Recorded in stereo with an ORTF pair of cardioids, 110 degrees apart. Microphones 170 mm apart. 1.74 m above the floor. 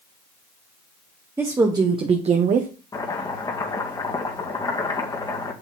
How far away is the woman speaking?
About 1.4 m.